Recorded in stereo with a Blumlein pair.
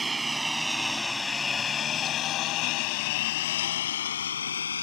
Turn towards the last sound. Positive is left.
turn(degrees=70)